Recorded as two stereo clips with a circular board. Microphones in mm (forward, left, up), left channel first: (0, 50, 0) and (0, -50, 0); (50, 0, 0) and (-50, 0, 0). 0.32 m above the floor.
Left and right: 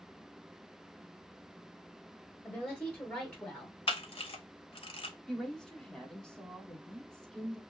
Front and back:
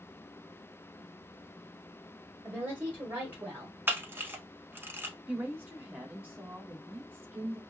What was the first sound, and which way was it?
A woman speaking, 140° left.